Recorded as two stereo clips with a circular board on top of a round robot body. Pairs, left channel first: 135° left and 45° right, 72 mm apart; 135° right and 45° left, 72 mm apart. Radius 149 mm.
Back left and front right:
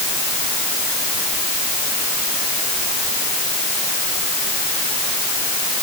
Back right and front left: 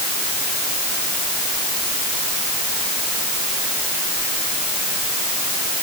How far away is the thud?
I don't hear a thud.